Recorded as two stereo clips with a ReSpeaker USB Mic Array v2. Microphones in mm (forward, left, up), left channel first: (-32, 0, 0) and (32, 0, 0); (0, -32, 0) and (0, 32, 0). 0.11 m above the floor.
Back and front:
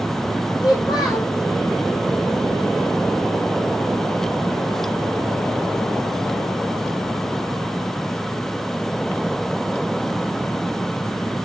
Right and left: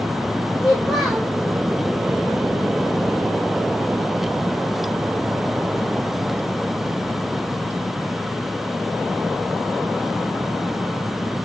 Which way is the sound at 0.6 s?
175° right.